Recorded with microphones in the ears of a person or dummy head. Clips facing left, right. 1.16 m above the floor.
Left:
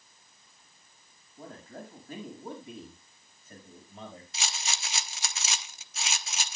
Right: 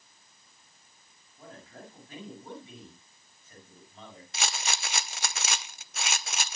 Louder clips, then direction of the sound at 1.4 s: Left 4 dB; 35° left (ahead or behind).